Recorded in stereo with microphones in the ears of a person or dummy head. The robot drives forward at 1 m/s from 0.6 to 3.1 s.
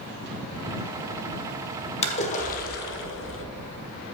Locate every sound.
2.0 s a splash: 30° left (ahead or behind), 1.3 m; by 3.5 s 60° left (ahead or behind), 0.8 m